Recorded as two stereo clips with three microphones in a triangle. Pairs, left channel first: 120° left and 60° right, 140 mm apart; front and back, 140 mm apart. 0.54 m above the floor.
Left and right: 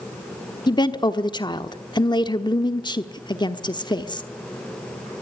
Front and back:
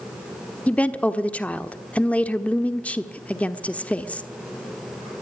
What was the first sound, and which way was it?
A woman speaking, 75° left.